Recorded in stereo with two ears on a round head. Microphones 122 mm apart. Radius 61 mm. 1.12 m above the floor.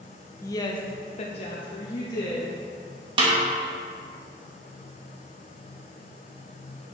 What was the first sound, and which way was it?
A woman speaking, 20° left (ahead or behind).